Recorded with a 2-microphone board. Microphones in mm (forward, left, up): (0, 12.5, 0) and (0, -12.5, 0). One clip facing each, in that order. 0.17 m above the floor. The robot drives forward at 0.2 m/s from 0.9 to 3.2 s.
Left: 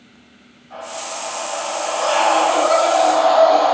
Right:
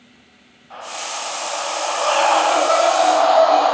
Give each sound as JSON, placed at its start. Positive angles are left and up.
{"t": 0.7, "sound": "a scream", "side_deg": -30, "distance_m": 1.5}